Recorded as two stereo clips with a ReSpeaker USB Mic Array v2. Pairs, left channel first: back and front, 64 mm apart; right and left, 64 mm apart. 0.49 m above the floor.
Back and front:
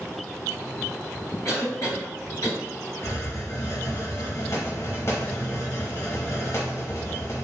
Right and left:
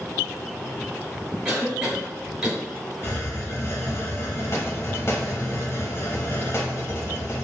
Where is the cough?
165° left, 1.6 m.